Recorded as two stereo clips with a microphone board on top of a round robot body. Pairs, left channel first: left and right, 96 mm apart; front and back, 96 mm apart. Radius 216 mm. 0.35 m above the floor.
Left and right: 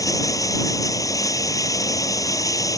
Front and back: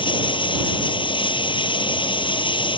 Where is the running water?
35° left.